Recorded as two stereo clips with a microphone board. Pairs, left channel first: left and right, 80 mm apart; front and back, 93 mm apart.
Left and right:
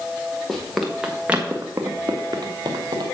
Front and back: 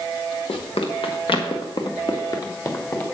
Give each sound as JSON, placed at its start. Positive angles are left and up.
{"t": 0.5, "sound": "running footsteps", "azimuth_deg": 5, "distance_m": 2.0}